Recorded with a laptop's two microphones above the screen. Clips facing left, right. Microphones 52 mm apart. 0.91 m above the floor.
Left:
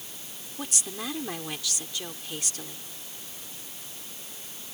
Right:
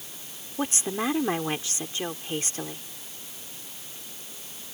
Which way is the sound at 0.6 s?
35° right (ahead or behind).